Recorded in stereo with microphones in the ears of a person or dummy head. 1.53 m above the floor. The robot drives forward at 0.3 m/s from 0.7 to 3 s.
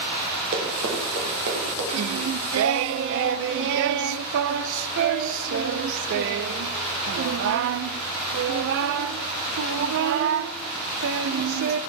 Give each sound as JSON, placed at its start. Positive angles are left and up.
{"t": 0.5, "sound": "running footsteps", "side_deg": -45, "distance_m": 2.0}
{"t": 1.9, "sound": "singing", "side_deg": -80, "distance_m": 0.6}